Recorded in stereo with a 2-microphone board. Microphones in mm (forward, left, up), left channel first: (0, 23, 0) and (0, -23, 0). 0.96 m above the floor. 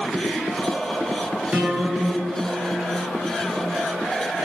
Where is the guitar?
35° right (ahead or behind), 5.5 m.